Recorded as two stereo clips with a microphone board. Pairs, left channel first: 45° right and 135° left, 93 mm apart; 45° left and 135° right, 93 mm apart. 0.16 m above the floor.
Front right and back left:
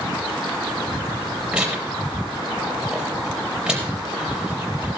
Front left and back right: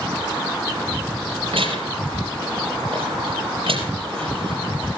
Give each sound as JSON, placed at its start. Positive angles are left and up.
{"t": 1.5, "sound": "tearing paper", "azimuth_deg": -145, "distance_m": 4.0}